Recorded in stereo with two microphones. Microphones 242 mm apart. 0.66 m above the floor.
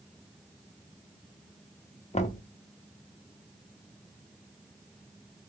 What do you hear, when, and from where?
2.1 s knocking: 30° left (ahead or behind), 0.6 m